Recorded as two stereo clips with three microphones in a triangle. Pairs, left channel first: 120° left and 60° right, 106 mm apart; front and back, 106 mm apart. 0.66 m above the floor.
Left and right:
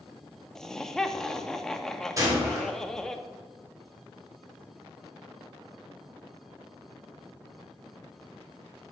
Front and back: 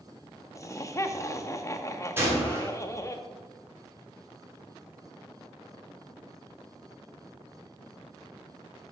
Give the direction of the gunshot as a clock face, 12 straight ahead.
4 o'clock.